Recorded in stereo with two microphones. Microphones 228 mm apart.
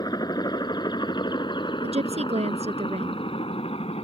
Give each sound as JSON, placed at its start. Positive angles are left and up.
{"t": 0.0, "sound": "a helicopter", "side_deg": 15}
{"t": 1.8, "sound": "a woman speaking", "side_deg": -25}